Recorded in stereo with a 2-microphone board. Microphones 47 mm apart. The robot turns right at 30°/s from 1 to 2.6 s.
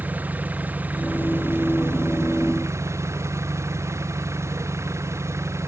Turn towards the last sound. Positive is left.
turn(degrees=-95)